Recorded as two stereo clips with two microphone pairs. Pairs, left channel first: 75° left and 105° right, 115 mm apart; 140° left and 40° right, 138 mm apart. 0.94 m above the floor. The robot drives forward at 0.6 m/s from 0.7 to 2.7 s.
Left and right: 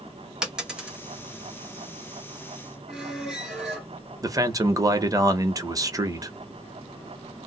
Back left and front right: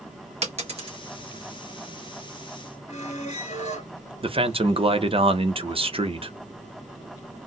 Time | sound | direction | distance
0.4 | a dropped coin | 25° right | 1.1 m
2.9 | a squeak | 165° left | 1.7 m
4.2 | a man speaking | 60° right | 0.6 m